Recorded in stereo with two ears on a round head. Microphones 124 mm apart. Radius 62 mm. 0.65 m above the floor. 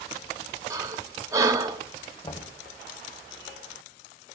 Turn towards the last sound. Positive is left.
turn(degrees=30)  # may be behind; listen again after turning